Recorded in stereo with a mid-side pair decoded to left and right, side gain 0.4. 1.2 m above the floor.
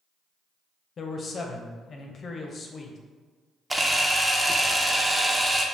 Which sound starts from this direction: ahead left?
A man speaking, at 1.0 s.